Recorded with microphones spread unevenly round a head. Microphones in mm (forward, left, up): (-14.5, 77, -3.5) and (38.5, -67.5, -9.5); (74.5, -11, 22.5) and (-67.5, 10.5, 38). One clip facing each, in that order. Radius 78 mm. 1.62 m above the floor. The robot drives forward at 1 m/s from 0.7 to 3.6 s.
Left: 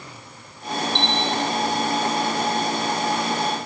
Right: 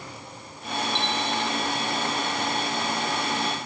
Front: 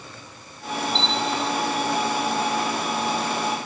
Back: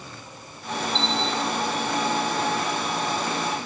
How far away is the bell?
About 1.0 m.